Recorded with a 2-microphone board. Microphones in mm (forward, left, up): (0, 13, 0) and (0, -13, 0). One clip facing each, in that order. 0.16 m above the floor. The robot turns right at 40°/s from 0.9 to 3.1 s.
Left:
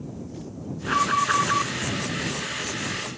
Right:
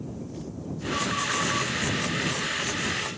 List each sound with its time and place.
0.9 s an alarm: 100° left; by 1.7 s 135° left